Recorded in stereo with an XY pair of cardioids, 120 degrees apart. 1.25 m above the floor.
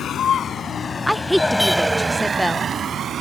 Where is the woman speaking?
Straight ahead.